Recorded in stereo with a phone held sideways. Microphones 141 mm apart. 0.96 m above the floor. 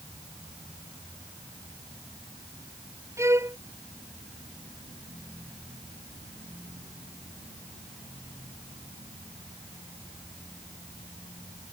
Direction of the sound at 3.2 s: 20° right (ahead or behind).